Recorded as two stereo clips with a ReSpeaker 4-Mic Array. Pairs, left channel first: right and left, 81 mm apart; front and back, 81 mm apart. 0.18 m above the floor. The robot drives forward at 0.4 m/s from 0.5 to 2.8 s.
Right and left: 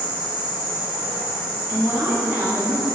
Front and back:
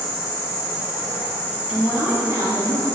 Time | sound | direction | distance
0.0 | an insect | 105° left | 1.7 m
1.7 | a woman speaking | 120° left | 1.0 m